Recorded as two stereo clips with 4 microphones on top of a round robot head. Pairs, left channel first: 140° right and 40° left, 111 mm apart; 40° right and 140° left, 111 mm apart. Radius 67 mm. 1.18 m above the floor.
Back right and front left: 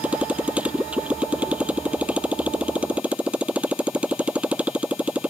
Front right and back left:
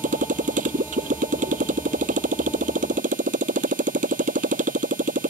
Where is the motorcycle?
120° left.